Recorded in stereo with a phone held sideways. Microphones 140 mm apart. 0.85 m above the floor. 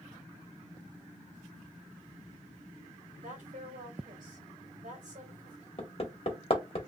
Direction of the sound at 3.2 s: 65° right (ahead or behind).